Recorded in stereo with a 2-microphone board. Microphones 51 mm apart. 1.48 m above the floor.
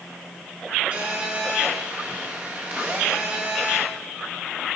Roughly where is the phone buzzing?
Right.